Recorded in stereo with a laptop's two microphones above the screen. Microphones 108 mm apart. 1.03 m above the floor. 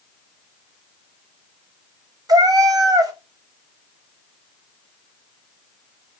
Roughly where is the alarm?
I don't hear an alarm.